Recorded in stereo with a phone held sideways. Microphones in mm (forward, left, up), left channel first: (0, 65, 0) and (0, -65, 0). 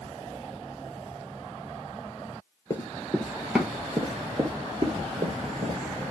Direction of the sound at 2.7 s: 25° left (ahead or behind).